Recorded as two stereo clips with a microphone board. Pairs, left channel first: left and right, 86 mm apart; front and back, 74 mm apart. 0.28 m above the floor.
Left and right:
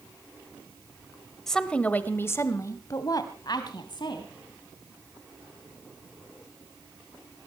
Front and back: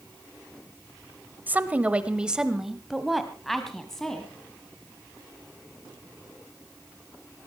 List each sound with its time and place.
1.5 s a woman speaking: 170° left, 1.3 m; by 4.3 s 80° left, 2.5 m